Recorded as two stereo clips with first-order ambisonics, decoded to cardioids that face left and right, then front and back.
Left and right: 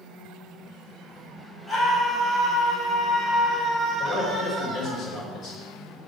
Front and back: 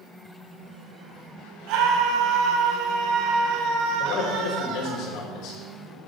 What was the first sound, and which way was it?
A scream, 175° left.